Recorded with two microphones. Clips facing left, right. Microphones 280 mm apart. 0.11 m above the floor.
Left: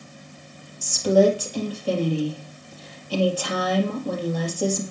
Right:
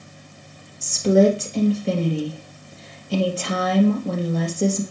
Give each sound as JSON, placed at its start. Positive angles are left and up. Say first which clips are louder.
{"t": 0.8, "sound": "a woman speaking", "louder": "right 2 dB", "side_deg": -25, "distance_m": 3.0}